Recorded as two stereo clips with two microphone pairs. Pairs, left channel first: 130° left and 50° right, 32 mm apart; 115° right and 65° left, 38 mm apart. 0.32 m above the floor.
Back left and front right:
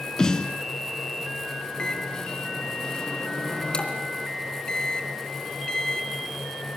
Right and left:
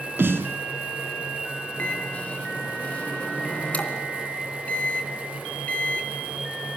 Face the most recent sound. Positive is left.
turn(degrees=-165)